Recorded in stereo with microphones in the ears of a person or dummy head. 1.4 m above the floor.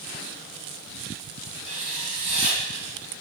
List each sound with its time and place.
1.6 s writing: 65° right (ahead or behind), 3 m